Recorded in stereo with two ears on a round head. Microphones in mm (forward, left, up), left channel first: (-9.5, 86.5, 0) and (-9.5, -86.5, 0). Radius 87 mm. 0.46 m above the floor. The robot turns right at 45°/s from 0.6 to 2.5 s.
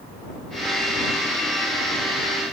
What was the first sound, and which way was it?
Only background noise.